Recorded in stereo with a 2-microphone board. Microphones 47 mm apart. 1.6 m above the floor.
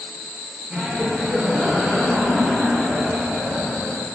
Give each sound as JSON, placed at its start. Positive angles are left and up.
{"t": 0.7, "sound": "laughter", "side_deg": -30, "distance_m": 1.5}